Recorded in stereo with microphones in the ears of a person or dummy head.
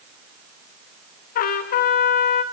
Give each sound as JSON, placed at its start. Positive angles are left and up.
{"t": 1.4, "sound": "a trumpet", "side_deg": 55, "distance_m": 2.5}